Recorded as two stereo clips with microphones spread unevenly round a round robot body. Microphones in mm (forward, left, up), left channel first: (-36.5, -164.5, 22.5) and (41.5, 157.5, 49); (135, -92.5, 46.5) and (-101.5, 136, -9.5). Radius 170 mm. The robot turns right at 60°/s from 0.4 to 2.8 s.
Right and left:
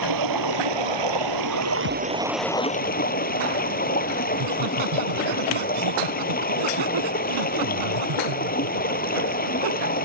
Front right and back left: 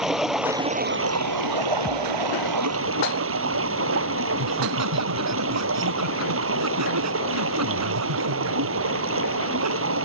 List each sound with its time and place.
0.0 s running water: 45° left; by 10.1 s 170° right
1.9 s a thud: 135° right; by 2.2 s 110° right
4.3 s laughter: 95° left